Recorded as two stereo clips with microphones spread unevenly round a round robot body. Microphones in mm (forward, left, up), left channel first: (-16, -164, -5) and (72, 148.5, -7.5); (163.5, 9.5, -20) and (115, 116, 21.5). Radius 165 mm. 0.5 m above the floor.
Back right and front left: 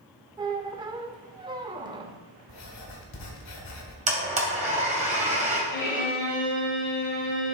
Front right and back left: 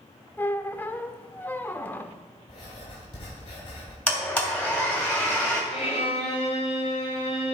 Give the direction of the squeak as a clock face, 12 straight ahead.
12 o'clock.